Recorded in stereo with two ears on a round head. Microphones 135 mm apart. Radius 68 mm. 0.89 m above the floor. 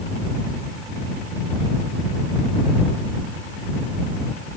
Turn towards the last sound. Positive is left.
No sound to turn to.